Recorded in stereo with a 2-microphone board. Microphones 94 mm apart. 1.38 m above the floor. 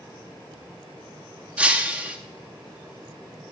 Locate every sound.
1.6 s breaking glass: 15° right (ahead or behind), 1.0 m